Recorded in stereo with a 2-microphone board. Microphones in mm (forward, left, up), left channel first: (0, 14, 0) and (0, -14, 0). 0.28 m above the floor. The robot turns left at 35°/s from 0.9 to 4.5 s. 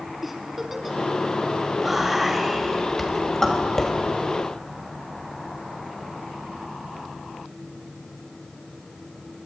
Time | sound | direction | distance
0.2 | a giggle | 10° right (ahead or behind) | 1.0 m
1.8 | whispering | 15° right (ahead or behind) | 1.6 m